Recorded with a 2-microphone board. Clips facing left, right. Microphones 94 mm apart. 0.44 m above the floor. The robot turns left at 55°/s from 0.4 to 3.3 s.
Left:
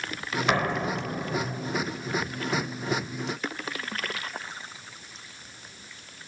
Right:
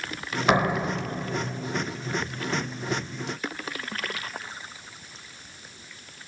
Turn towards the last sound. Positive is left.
turn(degrees=50)